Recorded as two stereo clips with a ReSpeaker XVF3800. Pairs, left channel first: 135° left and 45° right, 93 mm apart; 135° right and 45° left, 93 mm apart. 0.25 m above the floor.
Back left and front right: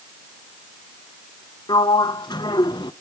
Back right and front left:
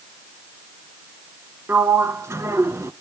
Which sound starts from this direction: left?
A sliding door, at 1.7 s.